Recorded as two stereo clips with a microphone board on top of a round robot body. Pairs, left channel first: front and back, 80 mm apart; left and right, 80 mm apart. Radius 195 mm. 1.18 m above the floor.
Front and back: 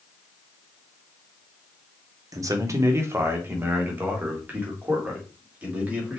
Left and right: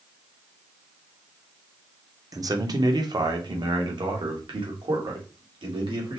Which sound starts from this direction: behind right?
A man speaking, at 2.3 s.